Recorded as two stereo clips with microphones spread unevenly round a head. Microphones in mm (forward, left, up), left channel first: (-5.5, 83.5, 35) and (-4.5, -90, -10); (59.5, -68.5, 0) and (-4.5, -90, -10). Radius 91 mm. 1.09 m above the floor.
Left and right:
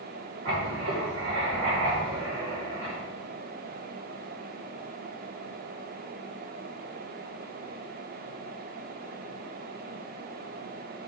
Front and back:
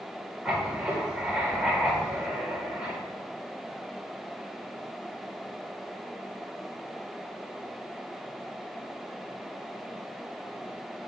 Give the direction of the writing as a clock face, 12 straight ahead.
3 o'clock.